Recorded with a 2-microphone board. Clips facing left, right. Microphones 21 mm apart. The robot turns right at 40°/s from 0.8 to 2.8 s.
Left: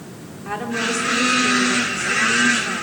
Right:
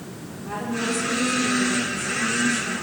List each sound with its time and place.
0.5 s a woman speaking: 45° left, 4 m; by 2.8 s 125° left, 4 m